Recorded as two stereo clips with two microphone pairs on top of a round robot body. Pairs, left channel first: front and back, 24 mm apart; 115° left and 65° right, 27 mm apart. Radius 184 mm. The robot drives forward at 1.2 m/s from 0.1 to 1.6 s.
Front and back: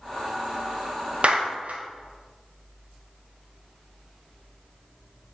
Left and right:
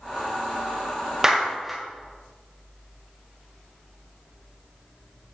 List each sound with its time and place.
1.2 s a clap: 135° right, 0.9 m; by 1.8 s 150° right, 1.2 m